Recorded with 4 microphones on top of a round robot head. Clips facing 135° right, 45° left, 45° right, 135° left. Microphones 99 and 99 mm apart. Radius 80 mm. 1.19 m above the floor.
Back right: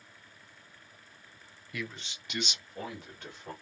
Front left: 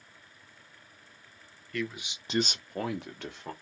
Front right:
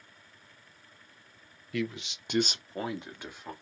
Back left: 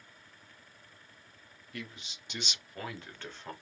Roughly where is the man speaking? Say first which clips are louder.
Front left 5 dB, front right 12 dB; ahead right.